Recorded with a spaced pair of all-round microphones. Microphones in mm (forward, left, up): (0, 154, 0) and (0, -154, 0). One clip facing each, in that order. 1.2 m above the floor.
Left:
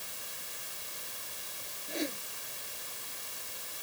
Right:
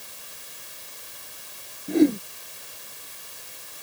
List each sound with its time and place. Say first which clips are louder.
1.9 s a whoosh: right 19 dB; 70° right (ahead or behind)